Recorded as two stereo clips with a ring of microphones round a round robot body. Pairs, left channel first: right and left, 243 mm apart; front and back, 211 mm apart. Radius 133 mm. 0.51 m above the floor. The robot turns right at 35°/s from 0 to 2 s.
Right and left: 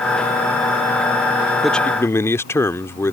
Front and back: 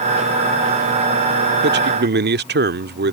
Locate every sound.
1.6 s a man speaking: straight behind; by 3.1 s 165° right